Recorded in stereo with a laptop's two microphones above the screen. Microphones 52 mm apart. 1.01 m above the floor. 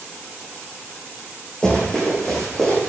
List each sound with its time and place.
1.6 s running footsteps: 20° left (ahead or behind), 3 m; by 2.9 s 5° left (ahead or behind), 4.5 m